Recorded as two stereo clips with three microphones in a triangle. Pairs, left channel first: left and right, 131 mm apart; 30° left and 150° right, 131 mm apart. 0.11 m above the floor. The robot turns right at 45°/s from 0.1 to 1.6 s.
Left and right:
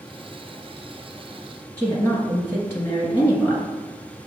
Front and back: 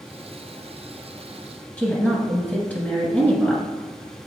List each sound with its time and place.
1.8 s a woman speaking: 85° left, 1.3 m